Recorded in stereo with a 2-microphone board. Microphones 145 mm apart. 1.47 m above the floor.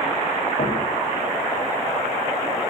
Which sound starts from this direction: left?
Knocking, at 0.6 s.